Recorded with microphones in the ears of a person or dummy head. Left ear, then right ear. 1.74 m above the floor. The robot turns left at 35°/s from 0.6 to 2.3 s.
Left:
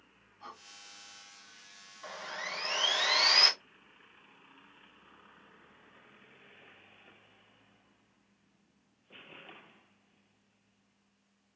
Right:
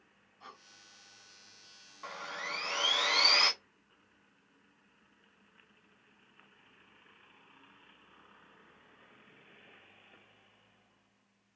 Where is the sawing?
10° right (ahead or behind), 0.8 m; by 3.5 s 5° right (ahead or behind), 0.8 m.